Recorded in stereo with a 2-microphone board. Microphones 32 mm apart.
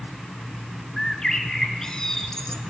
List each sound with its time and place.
1.0 s a bird: 15° left (ahead or behind), 1.3 m